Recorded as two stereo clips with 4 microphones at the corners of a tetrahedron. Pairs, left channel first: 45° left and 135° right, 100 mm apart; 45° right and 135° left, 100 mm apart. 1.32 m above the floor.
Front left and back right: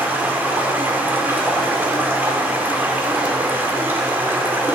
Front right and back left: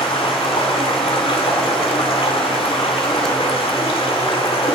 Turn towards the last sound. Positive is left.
turn(degrees=-65)